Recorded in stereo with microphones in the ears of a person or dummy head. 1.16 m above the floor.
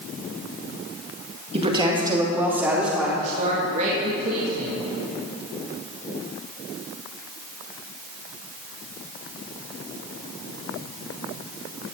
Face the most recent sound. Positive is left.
turn(degrees=-40)  # may be behind; listen again after turning